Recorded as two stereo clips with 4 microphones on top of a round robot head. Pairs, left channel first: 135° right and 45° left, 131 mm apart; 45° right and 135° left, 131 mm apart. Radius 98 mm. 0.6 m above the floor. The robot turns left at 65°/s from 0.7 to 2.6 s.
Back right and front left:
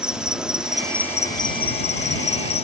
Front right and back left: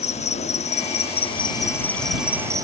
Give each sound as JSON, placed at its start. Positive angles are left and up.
{"t": 0.0, "sound": "an insect", "azimuth_deg": -40}